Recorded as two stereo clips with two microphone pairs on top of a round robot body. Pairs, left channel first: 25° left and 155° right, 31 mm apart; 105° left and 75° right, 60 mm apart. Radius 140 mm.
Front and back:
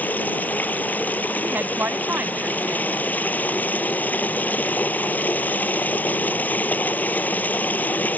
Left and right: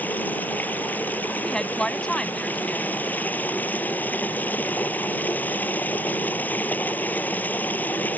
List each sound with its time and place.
0.0 s running water: 45° left
1.4 s a woman speaking: 175° right